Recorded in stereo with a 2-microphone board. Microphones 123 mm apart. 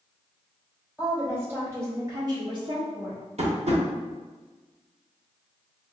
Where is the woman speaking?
15° right (ahead or behind), 2.0 m; by 3.2 s 60° right (ahead or behind), 0.9 m.